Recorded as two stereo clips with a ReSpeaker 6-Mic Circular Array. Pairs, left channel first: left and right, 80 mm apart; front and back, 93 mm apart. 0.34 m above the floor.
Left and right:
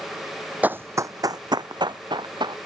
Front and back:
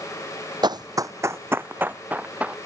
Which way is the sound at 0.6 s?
155° right.